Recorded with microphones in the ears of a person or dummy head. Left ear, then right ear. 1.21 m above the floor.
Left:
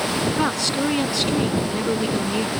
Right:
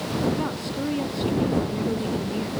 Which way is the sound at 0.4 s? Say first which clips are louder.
Left 7 dB; 40° left (ahead or behind).